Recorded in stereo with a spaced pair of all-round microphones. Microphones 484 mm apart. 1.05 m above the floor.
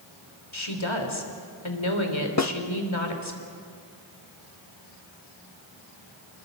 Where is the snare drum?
35° left (ahead or behind), 0.8 m.